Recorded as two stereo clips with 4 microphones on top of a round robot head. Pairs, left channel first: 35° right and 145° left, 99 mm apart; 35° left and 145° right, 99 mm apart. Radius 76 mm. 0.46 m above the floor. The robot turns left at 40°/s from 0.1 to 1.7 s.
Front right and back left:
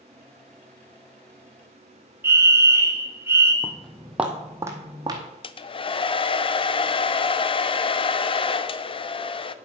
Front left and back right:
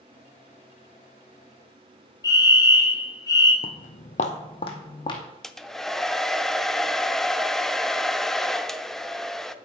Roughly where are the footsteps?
Ahead left.